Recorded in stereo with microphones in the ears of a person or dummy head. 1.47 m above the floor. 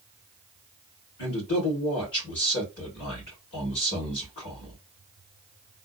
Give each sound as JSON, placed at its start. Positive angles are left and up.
{"t": 1.2, "sound": "a man speaking", "side_deg": 45, "distance_m": 1.9}